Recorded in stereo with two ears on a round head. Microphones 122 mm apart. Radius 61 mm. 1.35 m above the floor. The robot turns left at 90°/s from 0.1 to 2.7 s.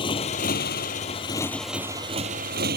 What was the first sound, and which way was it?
A motorcycle, 140° left.